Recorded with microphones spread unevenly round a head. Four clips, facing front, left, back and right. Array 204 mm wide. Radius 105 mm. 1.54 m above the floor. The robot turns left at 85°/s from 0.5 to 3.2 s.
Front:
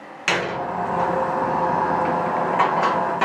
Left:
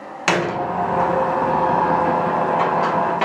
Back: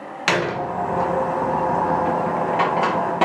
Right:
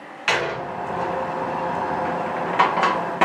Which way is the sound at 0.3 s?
100° left.